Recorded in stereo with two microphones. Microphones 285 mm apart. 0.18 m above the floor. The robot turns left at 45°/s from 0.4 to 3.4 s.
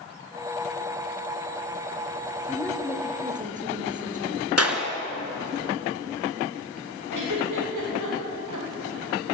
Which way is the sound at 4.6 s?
55° right (ahead or behind).